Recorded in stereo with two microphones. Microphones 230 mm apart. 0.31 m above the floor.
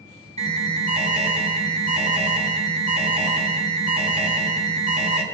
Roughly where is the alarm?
Right.